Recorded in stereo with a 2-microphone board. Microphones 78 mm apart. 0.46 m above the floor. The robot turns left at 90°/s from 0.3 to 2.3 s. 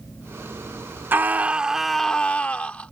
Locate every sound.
1.1 s a scream: 25° right (ahead or behind); by 2.9 s 15° left (ahead or behind)